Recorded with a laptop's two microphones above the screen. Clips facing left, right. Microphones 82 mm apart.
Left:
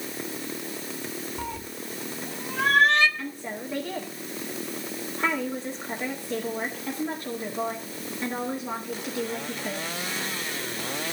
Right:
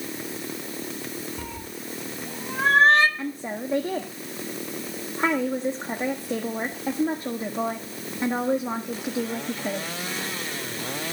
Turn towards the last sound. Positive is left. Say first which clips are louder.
# right 4 dB
turn(degrees=-30)  # may be behind; listen again after turning